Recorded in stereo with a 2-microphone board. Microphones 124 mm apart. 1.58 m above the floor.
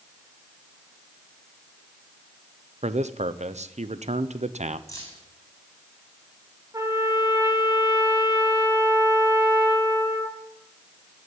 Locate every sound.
2.8 s a man speaking: 65° right (ahead or behind), 0.8 m
4.9 s keys jangling: 25° left (ahead or behind), 8 m
6.7 s a trumpet: 25° right (ahead or behind), 2.5 m